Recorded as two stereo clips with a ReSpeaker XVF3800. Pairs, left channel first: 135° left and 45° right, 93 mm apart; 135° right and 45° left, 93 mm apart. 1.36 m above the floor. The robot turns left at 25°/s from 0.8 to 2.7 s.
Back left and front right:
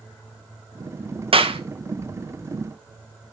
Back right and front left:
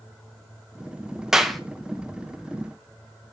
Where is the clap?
40° right, 1.2 m; by 1.6 s 45° right, 1.2 m.